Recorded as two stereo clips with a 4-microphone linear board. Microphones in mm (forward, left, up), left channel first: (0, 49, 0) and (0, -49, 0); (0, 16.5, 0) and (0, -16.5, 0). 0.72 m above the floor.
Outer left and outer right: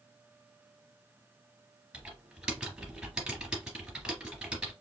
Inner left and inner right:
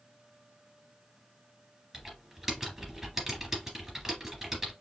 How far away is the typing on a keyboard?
About 2.5 m.